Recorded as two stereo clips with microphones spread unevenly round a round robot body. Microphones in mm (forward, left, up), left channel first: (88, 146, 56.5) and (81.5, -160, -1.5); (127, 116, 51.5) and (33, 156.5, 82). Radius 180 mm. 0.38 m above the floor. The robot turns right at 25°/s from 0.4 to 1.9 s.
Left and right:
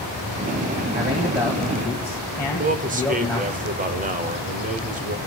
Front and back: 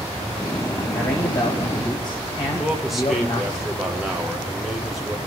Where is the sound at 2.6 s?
90° right, 1.0 m.